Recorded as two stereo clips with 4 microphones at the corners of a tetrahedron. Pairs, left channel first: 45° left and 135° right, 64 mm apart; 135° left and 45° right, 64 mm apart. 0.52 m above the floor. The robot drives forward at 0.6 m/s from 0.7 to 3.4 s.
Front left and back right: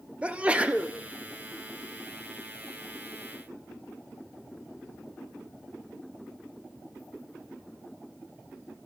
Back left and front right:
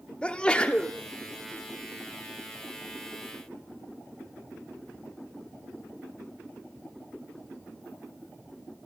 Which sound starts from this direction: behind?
A sneeze, at 0.2 s.